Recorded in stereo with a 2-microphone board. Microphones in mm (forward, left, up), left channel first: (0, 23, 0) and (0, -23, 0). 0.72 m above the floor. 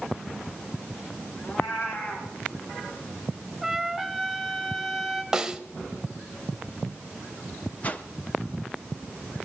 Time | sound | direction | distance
1.4 | a cat meowing | 55° left (ahead or behind) | 3.5 m
3.6 | a trumpet | centre (ahead or behind) | 1.5 m
5.3 | a snare drum | 15° right (ahead or behind) | 0.7 m
7.8 | a whoosh | 35° left (ahead or behind) | 0.8 m